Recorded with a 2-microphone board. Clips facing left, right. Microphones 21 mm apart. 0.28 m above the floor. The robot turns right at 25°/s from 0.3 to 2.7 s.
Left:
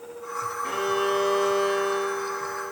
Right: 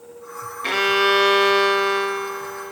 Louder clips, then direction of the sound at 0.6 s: Right 8 dB; 90° right.